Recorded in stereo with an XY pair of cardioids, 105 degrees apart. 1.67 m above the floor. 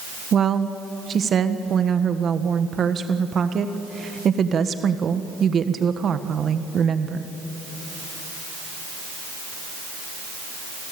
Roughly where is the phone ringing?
No phone ringing in this recording.